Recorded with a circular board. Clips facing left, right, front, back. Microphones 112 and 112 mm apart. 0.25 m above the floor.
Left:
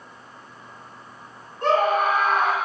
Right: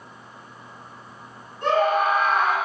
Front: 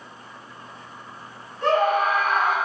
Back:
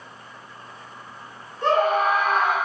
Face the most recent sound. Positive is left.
turn(degrees=120)